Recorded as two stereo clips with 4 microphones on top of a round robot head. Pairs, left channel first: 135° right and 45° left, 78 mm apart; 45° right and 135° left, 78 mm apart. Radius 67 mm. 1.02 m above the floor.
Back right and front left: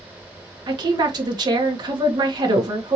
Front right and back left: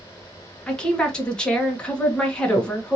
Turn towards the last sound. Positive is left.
turn(degrees=35)